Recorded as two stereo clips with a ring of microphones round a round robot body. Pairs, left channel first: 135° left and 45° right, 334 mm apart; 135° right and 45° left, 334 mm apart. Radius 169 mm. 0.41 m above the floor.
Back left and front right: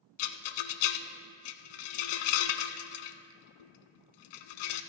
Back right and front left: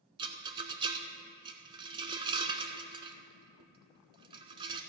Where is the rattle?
120° left, 0.7 m.